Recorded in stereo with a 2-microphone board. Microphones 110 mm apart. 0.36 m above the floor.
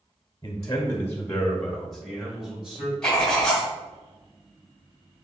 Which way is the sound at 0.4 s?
30° left (ahead or behind).